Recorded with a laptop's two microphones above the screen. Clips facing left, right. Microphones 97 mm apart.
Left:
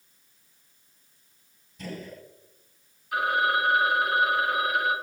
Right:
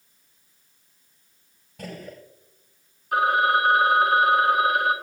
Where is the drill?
I don't hear a drill.